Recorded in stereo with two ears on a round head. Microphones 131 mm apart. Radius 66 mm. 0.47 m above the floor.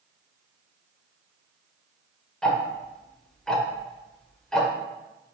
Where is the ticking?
5° left (ahead or behind), 0.7 m.